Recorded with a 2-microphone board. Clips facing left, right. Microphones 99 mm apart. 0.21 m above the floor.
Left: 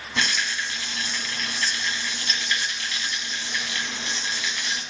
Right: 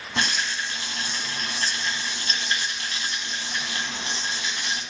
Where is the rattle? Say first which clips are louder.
Even; 40° right (ahead or behind), 1.6 m.